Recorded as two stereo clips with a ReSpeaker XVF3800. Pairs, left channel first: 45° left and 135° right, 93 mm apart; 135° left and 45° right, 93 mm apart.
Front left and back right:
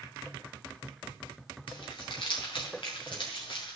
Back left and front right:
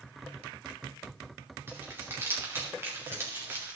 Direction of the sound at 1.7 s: 20° left.